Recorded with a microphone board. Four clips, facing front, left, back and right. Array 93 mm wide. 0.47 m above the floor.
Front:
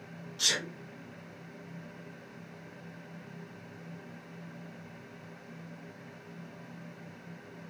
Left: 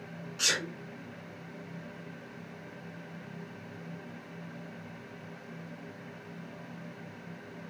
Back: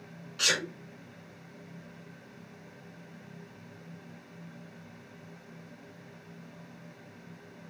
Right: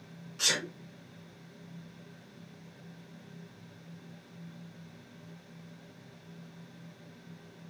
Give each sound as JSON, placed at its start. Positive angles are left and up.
{"t": 0.4, "sound": "a sneeze", "azimuth_deg": 170, "distance_m": 1.5}